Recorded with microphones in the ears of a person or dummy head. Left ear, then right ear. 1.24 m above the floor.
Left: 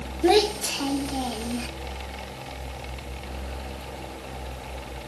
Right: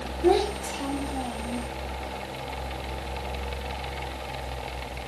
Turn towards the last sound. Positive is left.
turn(degrees=55)  # may be behind; listen again after turning